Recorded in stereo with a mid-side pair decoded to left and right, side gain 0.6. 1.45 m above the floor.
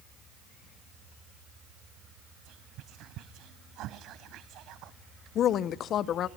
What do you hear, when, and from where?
2.5 s whispering: 60° right, 0.9 m
5.3 s a woman speaking: 50° left, 0.9 m